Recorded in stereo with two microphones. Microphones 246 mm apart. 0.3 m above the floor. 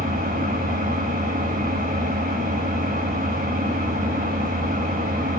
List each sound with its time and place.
0.0 s an engine running: 40° right (ahead or behind), 3 m